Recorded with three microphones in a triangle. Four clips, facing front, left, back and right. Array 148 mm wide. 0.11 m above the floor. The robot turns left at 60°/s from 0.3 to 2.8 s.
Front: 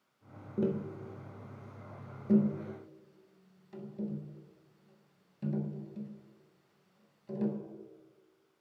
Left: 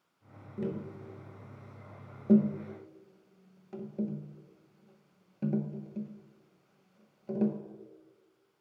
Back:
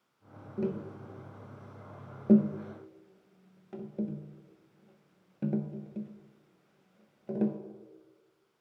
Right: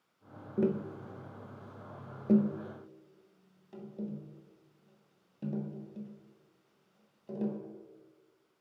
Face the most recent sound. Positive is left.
turn(degrees=160)